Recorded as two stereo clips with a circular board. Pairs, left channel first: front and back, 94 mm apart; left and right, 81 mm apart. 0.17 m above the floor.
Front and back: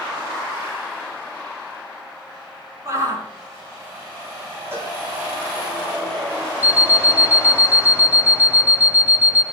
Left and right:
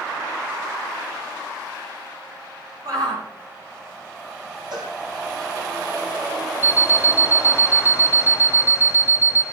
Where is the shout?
125° right, 9 m.